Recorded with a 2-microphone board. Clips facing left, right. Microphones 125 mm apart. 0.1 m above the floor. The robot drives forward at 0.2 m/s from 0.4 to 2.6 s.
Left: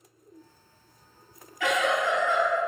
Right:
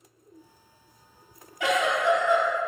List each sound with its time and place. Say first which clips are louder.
1.6 s a giggle: right 1 dB; 20° right (ahead or behind), 1.5 m